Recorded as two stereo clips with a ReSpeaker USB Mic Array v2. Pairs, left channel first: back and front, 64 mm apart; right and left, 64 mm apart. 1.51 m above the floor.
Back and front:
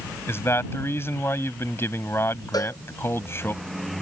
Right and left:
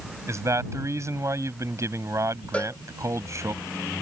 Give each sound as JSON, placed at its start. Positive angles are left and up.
{"t": 0.3, "sound": "a man speaking", "azimuth_deg": 130}
{"t": 2.5, "sound": "a cowbell", "azimuth_deg": -160}